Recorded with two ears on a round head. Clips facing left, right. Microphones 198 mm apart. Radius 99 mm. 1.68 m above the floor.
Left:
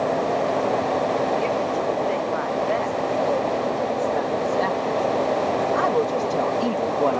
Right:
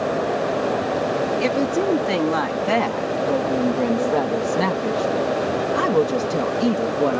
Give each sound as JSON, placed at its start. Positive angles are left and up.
{"t": 1.4, "sound": "a woman speaking", "side_deg": -80}